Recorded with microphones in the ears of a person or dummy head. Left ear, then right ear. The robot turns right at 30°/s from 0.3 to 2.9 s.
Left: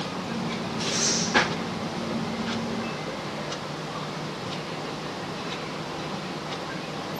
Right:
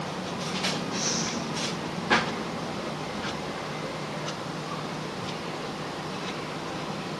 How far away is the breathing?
About 5 m.